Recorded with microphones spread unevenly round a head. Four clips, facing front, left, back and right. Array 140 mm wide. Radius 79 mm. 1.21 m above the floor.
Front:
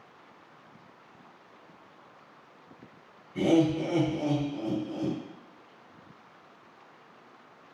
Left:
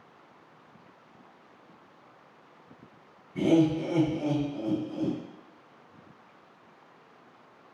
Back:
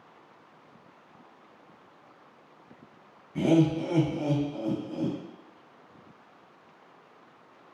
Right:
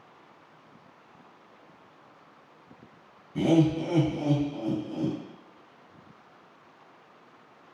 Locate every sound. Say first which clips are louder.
3.4 s laughter: even, back 1 dB; 120° right, 1.3 m